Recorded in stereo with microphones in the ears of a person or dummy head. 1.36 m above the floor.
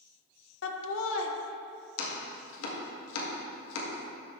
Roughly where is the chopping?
Left.